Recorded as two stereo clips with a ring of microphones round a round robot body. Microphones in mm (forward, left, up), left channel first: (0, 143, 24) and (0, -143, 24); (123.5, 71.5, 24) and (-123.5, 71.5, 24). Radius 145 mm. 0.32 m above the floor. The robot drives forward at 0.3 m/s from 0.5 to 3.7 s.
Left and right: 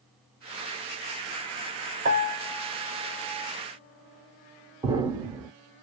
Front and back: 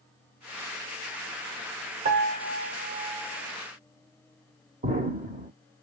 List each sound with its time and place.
2.0 s a piano: 140° right, 0.6 m; by 3.5 s 160° right, 0.9 m
4.8 s an explosion: 155° right, 0.8 m